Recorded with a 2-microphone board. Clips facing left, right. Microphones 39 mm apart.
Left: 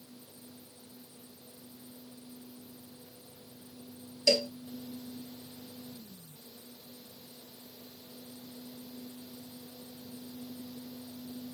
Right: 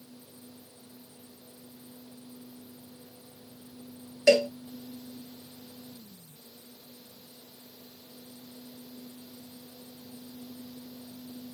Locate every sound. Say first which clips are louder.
4.3 s a cowbell: right 7 dB; 45° right (ahead or behind)